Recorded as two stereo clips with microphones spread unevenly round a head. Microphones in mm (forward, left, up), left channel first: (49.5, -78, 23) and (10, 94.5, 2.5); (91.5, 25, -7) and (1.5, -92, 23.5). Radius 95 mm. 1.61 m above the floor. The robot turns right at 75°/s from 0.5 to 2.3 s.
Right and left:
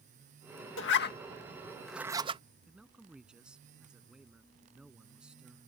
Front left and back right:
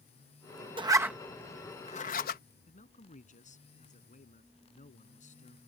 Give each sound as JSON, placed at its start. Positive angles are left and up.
{"t": 0.8, "sound": "a zipper", "azimuth_deg": -70}
{"t": 2.7, "sound": "a man speaking", "azimuth_deg": 15}